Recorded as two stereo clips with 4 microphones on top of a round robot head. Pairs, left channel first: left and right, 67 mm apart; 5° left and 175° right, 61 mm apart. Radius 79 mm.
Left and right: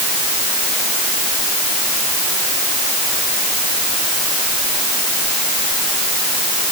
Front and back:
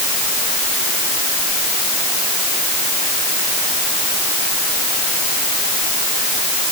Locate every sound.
Only background noise.